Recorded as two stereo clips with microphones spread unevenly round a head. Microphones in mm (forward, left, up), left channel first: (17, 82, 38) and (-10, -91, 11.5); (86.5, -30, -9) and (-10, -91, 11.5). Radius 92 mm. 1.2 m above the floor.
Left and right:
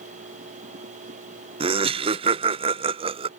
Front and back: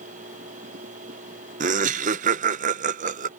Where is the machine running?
150° right.